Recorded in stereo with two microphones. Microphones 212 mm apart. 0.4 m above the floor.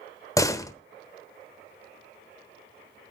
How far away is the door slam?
About 1.0 m.